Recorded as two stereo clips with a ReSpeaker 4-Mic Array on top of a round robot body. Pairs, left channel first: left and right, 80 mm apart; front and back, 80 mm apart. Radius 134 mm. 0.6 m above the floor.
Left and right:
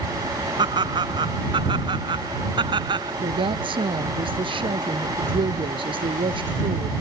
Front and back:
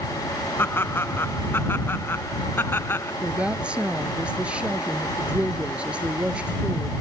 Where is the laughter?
65° right.